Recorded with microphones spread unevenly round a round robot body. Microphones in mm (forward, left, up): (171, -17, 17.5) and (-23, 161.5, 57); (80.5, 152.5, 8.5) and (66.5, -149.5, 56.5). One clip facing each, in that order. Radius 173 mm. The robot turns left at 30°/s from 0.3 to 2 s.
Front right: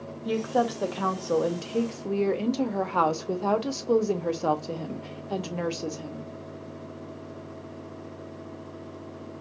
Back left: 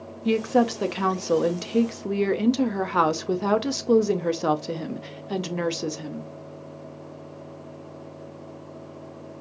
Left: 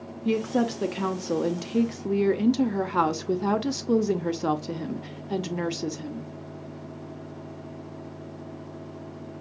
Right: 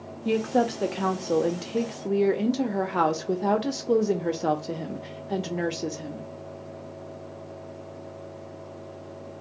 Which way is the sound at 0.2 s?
135° left.